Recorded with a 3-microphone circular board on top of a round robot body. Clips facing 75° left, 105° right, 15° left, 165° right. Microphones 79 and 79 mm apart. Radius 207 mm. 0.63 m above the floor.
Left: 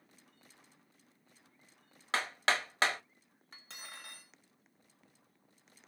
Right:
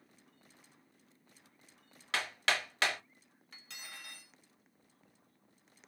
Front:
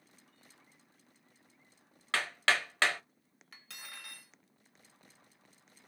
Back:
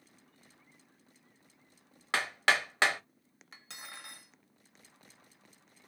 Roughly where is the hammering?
Behind left.